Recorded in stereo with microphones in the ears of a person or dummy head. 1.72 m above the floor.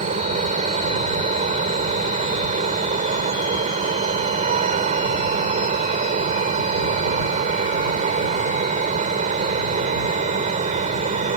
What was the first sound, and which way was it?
A fan, 45° right (ahead or behind).